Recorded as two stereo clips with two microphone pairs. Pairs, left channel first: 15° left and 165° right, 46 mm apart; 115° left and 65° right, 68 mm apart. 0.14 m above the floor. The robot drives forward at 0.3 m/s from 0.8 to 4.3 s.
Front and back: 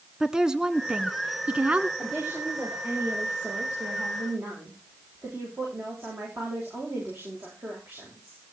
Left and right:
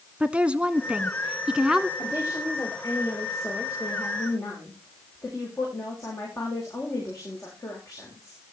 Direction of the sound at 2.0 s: 155° left.